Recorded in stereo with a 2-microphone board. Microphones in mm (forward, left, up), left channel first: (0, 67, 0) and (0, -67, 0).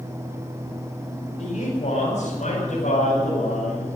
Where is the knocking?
No knocking in this recording.